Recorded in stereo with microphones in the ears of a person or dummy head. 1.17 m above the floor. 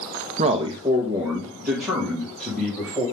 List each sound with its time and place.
0.4 s a man speaking: 35° right (ahead or behind), 0.8 m; by 3.0 s centre (ahead or behind), 3.5 m